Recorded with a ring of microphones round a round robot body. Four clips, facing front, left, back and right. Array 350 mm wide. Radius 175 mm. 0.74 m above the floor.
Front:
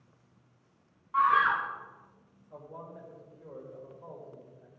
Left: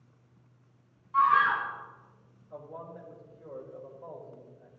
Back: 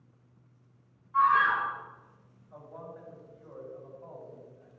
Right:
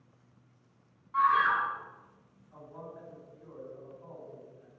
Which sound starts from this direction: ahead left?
A man speaking, at 2.5 s.